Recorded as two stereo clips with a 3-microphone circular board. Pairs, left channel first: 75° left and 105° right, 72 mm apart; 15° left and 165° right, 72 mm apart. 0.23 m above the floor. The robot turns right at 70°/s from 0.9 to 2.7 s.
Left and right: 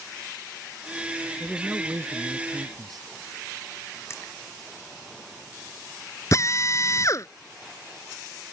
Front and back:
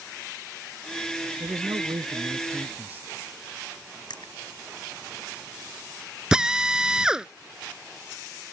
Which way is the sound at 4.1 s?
20° left.